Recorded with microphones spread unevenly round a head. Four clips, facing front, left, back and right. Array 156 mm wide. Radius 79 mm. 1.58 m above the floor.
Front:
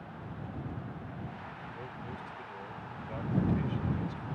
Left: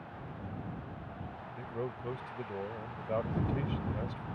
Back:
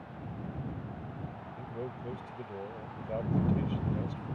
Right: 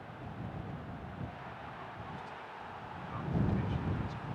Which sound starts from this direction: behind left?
A man speaking, at 1.6 s.